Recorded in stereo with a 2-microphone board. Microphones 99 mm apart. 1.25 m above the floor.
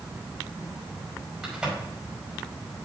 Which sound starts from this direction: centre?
A crack, at 1.4 s.